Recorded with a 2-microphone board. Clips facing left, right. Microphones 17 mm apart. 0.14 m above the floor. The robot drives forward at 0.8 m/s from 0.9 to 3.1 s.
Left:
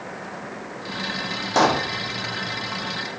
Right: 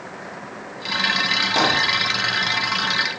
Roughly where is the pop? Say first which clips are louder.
Left 2 dB; left.